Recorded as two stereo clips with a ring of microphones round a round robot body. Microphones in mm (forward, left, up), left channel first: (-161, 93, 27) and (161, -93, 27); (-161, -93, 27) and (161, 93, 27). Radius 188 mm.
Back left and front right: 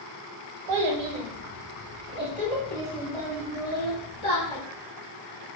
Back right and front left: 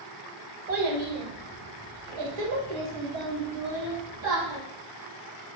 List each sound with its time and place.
0.7 s a child speaking: 25° right, 1.1 m; by 4.6 s 75° left, 1.9 m